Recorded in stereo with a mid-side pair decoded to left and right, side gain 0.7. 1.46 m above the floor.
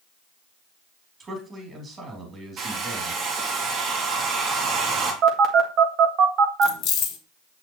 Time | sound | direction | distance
1.2 | a man speaking | 30° right | 3.5 m
2.6 | a hair dryer | 45° right | 2.5 m
5.2 | a phone buzzing | 50° right | 1.7 m
6.6 | keys jangling | 55° left | 1.6 m